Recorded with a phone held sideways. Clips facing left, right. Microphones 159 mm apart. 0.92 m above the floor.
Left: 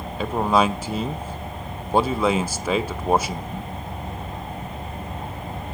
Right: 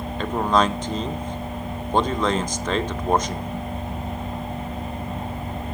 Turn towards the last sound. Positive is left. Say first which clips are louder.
# left 1 dB
turn(degrees=10)  # may be behind; listen again after turning